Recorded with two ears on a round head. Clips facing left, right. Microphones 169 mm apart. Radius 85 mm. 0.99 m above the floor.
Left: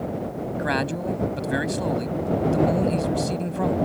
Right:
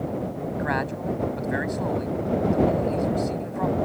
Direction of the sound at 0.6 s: 45° left (ahead or behind).